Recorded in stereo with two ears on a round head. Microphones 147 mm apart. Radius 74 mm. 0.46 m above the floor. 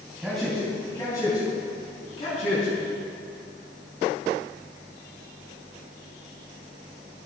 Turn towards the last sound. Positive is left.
turn(degrees=45)  # may be behind; listen again after turning